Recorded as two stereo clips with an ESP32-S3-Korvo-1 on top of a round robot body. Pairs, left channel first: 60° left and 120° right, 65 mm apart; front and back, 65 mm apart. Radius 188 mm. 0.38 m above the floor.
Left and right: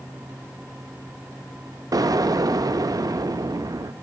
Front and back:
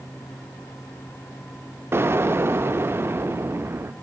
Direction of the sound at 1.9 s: 130° right.